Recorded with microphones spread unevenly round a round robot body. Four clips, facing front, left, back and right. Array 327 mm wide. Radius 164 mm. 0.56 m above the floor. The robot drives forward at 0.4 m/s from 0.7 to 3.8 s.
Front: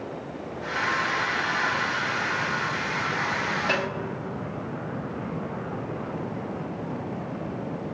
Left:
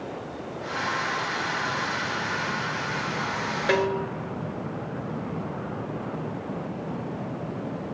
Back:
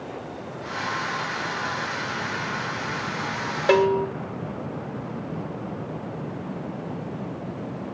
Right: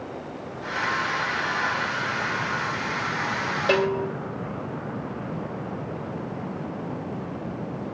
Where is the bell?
Straight behind, 1.1 m.